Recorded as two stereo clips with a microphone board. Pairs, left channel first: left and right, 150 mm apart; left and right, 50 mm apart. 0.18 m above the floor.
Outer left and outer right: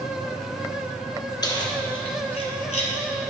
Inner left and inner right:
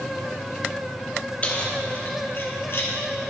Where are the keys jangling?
25° left (ahead or behind), 1.2 m; by 2.9 s 55° left (ahead or behind), 1.2 m.